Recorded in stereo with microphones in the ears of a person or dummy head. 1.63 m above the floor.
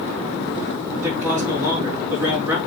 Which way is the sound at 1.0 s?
10° right (ahead or behind).